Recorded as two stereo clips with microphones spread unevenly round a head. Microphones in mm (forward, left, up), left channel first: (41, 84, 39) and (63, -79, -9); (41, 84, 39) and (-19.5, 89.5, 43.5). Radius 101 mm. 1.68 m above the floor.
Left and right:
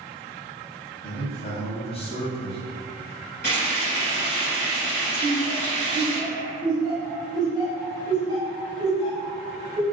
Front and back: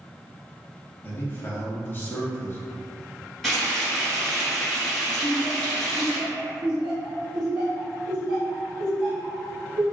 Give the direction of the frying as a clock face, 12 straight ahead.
9 o'clock.